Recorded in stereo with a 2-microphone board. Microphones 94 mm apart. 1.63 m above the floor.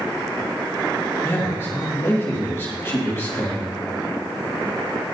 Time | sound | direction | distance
1.2 | a man speaking | 25° left (ahead or behind) | 2.5 m